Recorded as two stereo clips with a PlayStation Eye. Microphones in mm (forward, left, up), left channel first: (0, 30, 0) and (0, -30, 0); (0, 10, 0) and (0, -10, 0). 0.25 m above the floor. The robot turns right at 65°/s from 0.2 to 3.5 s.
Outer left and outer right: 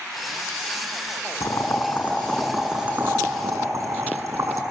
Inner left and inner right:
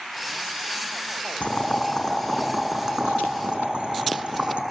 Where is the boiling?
70° left (ahead or behind), 5.5 m; by 4.6 s 65° right (ahead or behind), 5.5 m.